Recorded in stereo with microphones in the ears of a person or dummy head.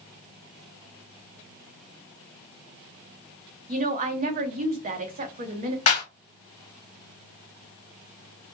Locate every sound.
3.7 s a woman speaking: 40° right (ahead or behind), 0.6 m
5.9 s a clap: 35° left (ahead or behind), 0.8 m